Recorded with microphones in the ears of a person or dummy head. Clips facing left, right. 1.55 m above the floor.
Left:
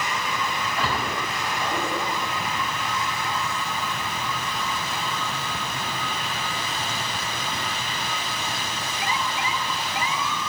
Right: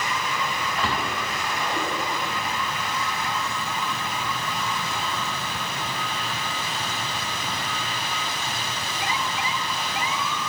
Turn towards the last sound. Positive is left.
turn(degrees=5)  # may be behind; listen again after turning